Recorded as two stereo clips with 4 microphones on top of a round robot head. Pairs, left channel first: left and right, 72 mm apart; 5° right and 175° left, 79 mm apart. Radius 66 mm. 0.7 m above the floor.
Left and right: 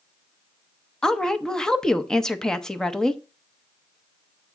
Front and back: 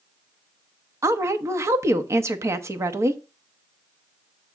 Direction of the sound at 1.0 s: 165° left.